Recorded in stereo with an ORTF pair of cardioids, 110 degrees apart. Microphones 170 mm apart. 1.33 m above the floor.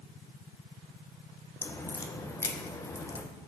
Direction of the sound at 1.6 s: 20° left.